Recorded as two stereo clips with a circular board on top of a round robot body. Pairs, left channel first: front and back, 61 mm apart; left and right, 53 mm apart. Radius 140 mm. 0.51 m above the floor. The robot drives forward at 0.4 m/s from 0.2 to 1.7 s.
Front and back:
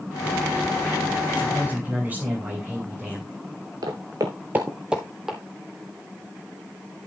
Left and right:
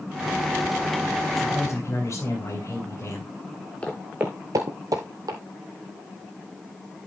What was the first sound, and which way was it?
A man speaking, 120° left.